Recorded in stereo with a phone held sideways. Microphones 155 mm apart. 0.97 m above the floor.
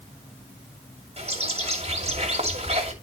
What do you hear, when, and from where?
1.2 s a bird: 45° right (ahead or behind), 2.5 m